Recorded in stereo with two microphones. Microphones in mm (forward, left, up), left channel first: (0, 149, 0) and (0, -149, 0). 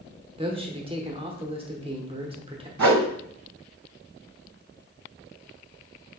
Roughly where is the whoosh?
Right.